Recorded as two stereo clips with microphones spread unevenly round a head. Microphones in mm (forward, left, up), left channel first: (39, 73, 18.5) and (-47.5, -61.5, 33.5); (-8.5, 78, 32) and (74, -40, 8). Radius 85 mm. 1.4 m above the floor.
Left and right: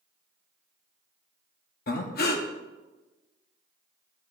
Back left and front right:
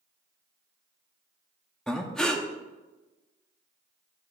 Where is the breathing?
35° left, 1.0 m.